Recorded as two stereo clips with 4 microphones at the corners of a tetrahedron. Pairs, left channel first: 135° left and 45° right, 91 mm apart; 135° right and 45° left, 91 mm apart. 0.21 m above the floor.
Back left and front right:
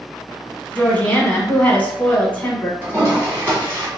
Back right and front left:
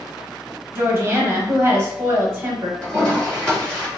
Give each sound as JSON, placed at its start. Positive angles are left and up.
{"t": 0.8, "sound": "a woman speaking", "azimuth_deg": 75, "distance_m": 1.1}
{"t": 2.8, "sound": "a toilet flushing", "azimuth_deg": -65, "distance_m": 1.7}